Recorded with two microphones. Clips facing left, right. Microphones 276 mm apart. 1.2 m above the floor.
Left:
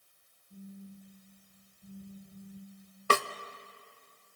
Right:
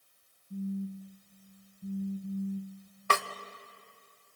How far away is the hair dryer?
No hair dryer in this recording.